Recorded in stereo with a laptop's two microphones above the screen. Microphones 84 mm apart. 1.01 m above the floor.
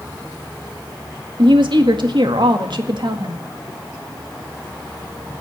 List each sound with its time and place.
1.4 s a woman speaking: 70° right (ahead or behind), 1.9 m